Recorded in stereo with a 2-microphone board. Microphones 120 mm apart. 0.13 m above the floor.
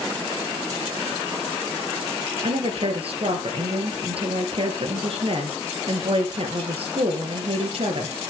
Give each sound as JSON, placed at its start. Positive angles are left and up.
{"t": 2.4, "sound": "a woman speaking", "side_deg": -55, "distance_m": 3.0}